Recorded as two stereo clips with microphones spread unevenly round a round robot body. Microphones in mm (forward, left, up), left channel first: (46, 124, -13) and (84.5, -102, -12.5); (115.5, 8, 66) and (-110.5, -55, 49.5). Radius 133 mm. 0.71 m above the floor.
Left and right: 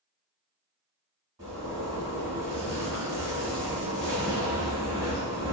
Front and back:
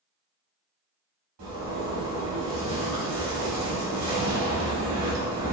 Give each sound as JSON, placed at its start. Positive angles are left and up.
{"t": 1.4, "sound": "a zipper", "azimuth_deg": -155, "distance_m": 1.6}